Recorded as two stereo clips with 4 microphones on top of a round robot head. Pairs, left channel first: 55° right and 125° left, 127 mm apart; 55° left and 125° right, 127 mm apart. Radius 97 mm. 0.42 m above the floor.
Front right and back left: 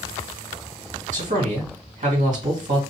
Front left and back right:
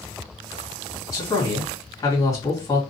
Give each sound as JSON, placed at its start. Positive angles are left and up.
{"t": 1.1, "sound": "a man speaking", "azimuth_deg": 115, "distance_m": 3.0}